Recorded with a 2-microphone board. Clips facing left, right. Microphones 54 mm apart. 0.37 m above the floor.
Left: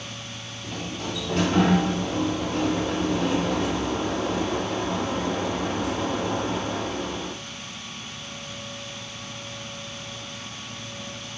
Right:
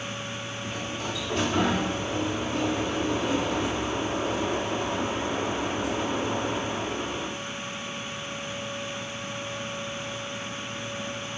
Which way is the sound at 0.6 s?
60° left (ahead or behind).